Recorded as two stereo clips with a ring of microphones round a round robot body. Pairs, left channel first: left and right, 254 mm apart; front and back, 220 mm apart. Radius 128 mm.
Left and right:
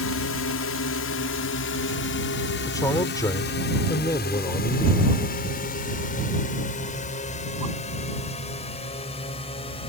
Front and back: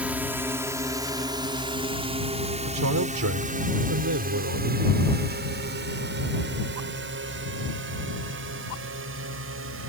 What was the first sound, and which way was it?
A drone, 100° left.